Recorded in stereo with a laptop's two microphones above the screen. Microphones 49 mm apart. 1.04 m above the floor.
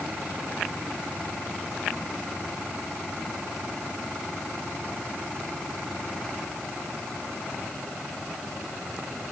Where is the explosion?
I don't hear an explosion.